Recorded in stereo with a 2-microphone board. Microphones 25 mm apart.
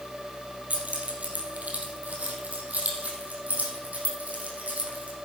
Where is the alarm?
I don't hear an alarm.